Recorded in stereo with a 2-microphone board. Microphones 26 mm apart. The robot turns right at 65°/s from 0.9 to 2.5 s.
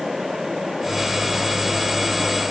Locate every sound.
Only background noise.